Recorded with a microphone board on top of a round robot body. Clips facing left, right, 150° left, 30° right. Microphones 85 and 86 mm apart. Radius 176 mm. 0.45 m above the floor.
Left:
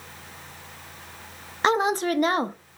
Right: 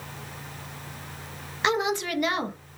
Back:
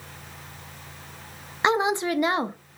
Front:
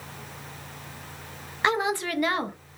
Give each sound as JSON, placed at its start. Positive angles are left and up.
{"t": 1.6, "sound": "a woman speaking", "azimuth_deg": 95, "distance_m": 0.8}